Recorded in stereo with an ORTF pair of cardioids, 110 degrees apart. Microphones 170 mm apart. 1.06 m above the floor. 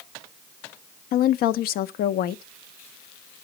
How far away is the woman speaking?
About 0.6 m.